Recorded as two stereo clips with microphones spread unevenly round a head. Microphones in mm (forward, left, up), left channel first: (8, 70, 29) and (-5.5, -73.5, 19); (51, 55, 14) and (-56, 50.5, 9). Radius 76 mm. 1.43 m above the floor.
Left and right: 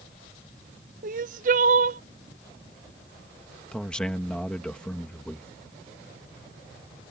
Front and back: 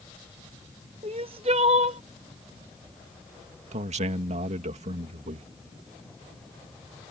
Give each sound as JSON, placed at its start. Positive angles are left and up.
{"t": 1.0, "sound": "crying", "azimuth_deg": -130}
{"t": 3.7, "sound": "a man speaking", "azimuth_deg": 170}